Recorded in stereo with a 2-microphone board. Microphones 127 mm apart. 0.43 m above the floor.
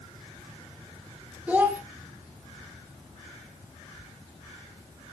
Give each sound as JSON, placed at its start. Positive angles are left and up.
{"t": 1.5, "sound": "a child speaking", "side_deg": -10, "distance_m": 1.0}